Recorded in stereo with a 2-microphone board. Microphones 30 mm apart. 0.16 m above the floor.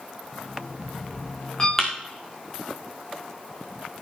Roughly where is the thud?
Centre.